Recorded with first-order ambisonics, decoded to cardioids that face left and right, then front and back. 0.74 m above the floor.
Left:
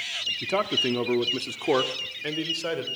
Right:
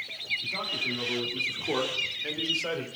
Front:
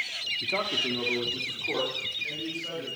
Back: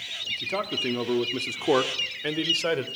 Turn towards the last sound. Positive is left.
turn(degrees=170)